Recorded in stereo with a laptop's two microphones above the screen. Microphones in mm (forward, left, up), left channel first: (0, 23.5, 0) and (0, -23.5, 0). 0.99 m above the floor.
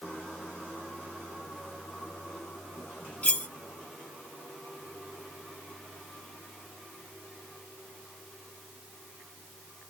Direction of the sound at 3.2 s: 35° left (ahead or behind).